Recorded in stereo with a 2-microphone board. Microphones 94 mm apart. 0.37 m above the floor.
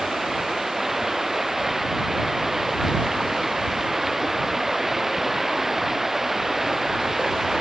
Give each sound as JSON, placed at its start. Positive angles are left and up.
{"t": 0.0, "sound": "running water", "side_deg": -5}